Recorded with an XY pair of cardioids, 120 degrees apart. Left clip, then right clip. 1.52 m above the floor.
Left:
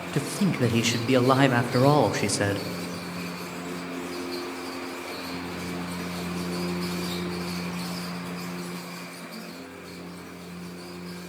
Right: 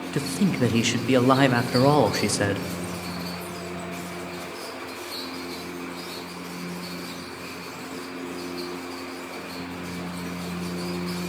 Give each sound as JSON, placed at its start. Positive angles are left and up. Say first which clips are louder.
{"t": 0.1, "sound": "a man speaking", "louder": "right 2 dB", "azimuth_deg": -5, "distance_m": 0.6}